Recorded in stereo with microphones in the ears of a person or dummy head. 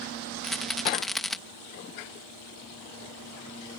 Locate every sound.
0.4 s a rattle: centre (ahead or behind)